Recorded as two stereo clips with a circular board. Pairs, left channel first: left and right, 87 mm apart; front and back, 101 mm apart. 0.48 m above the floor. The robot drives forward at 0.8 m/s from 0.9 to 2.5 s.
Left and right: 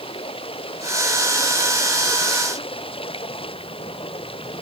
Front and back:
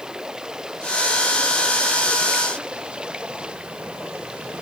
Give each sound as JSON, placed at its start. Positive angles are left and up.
{"t": 0.0, "sound": "running water", "azimuth_deg": 95}